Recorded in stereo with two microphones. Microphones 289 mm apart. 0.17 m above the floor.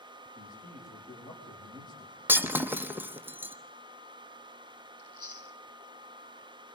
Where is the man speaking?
15° left (ahead or behind), 8 m.